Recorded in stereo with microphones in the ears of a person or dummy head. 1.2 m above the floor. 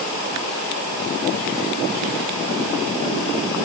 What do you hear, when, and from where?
Only background noise.